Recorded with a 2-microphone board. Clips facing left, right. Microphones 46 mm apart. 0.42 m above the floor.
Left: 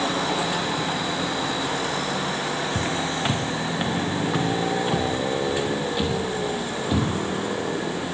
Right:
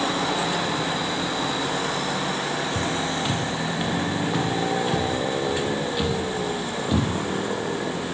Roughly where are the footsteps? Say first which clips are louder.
Even; left.